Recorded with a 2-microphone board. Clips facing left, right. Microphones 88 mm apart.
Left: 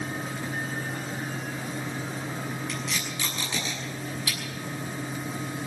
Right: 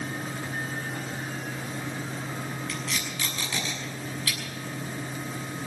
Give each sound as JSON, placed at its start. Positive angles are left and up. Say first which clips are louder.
{"t": 2.7, "sound": "tape being pulled", "louder": "left 1 dB", "side_deg": 20, "distance_m": 6.5}